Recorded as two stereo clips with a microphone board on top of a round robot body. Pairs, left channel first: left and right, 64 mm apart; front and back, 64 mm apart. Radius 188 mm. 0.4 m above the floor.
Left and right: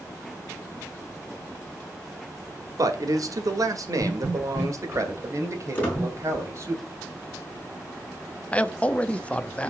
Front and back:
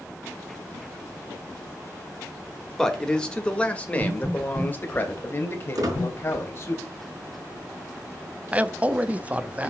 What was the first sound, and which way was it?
A man speaking, 80° right.